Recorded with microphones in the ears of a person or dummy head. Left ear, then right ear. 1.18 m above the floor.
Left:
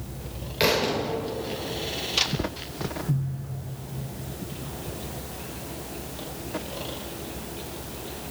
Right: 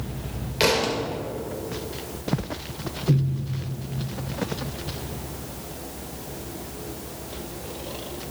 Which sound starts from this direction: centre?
A thud, at 0.6 s.